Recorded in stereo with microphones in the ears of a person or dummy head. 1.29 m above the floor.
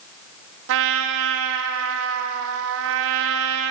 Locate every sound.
0.7 s a trumpet: 70° right (ahead or behind), 0.7 m